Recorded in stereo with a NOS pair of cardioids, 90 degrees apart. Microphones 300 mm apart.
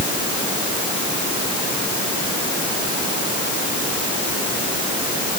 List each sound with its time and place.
Only background noise.